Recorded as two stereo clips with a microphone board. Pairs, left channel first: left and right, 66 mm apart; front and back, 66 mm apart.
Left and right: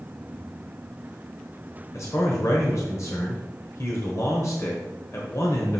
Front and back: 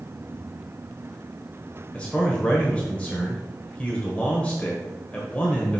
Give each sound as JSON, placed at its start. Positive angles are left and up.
{"t": 1.9, "sound": "a man speaking", "azimuth_deg": 65, "distance_m": 1.3}